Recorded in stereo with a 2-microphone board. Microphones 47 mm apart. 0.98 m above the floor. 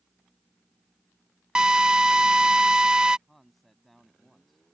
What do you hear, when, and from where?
1.6 s a drill: 15° right (ahead or behind)
3.3 s a man speaking: centre (ahead or behind)